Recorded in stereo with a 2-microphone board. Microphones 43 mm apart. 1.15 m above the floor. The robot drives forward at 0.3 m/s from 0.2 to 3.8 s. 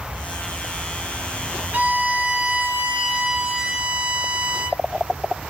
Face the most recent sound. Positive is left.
turn(degrees=-25)  # may be behind; listen again after turning